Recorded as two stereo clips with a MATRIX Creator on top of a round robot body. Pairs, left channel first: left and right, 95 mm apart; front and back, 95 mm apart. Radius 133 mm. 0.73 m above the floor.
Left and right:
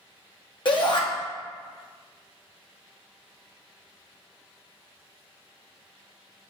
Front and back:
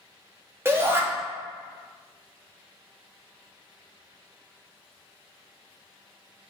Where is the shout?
120° left, 1.4 m.